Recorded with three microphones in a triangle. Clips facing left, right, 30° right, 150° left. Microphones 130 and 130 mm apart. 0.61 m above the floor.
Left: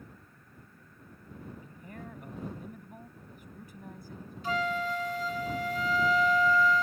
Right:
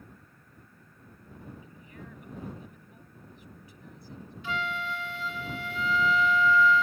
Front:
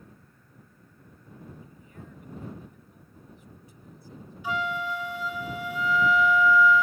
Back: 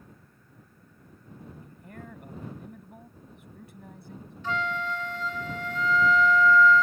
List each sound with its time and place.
1.6 s a man speaking: 130° left
4.4 s a flute: 45° left